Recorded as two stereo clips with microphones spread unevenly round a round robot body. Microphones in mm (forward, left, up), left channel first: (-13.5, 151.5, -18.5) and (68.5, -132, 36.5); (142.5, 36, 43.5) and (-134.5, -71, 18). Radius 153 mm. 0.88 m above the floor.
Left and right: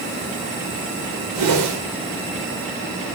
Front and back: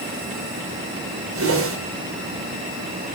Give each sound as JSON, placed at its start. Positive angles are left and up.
{"t": 1.4, "sound": "a whoosh", "azimuth_deg": -115, "distance_m": 4.0}